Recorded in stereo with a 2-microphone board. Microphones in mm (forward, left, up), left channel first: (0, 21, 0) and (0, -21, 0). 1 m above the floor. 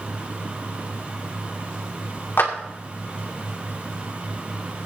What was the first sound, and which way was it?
A clap, 60° left (ahead or behind).